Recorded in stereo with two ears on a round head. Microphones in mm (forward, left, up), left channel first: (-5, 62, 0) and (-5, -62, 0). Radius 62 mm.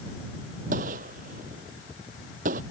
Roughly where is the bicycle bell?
No bicycle bell in this recording.